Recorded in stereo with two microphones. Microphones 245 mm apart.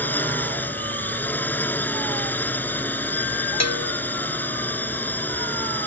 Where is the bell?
85° left.